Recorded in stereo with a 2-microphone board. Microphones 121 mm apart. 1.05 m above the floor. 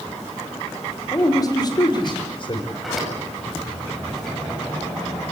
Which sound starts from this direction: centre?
A sliding door, at 2.7 s.